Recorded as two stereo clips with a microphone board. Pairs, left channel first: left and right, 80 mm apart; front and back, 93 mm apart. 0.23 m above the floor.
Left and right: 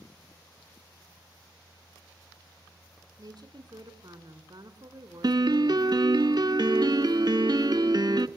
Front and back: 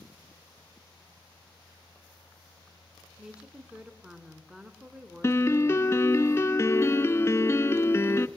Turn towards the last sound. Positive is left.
turn(degrees=-60)